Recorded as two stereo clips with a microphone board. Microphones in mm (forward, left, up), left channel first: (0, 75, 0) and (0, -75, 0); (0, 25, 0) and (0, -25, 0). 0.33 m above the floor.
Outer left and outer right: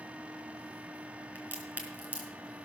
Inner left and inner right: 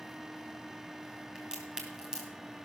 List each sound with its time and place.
1.4 s a crack: 10° right (ahead or behind), 4 m